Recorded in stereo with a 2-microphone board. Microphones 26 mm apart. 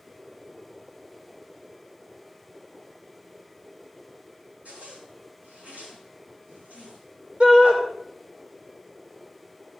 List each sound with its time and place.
4.7 s a zipper: 80° right, 7 m
7.4 s a shout: 60° right (ahead or behind), 2.5 m